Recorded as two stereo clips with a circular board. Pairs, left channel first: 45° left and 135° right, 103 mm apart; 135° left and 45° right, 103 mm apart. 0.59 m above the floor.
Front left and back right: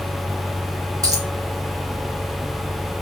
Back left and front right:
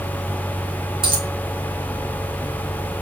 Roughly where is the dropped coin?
Right.